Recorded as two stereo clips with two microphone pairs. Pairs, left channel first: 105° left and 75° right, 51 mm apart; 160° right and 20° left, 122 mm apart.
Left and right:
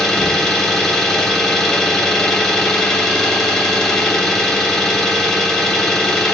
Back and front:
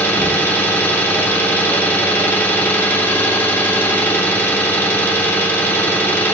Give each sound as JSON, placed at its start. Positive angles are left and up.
{"t": 0.0, "sound": "an engine running", "azimuth_deg": 165, "distance_m": 0.7}